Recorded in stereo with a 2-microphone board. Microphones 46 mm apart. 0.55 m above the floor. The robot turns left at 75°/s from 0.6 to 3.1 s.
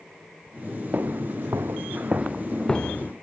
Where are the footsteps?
40° right (ahead or behind); by 3.1 s 50° left (ahead or behind).